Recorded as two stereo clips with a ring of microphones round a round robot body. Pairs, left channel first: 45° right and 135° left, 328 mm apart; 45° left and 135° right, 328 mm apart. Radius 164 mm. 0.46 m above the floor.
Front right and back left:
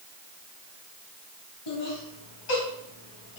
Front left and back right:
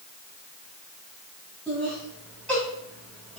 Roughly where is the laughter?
Ahead right.